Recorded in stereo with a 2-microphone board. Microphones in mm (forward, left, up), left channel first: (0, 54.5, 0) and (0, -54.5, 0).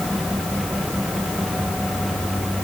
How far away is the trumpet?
I don't hear a trumpet.